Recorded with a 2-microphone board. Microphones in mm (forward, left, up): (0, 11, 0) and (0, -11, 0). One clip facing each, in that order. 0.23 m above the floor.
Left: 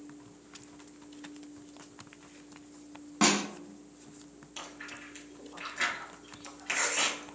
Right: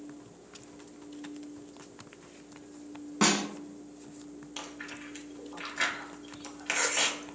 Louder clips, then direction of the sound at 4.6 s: Right 1 dB; 20° right (ahead or behind).